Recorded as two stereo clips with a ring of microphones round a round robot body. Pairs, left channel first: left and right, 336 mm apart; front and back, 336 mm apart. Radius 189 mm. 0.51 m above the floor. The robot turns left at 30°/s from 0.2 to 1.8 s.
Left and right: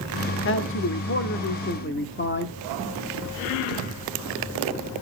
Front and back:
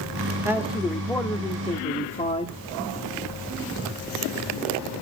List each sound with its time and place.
0.5 s a man speaking: 100° left, 0.9 m; by 2.5 s 60° left, 0.9 m